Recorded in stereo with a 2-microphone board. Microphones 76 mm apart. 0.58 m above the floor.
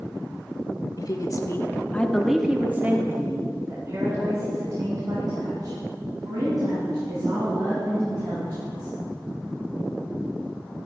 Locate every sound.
1.0 s a woman speaking: 50° left (ahead or behind), 1.2 m; by 8.9 s 55° right (ahead or behind), 6 m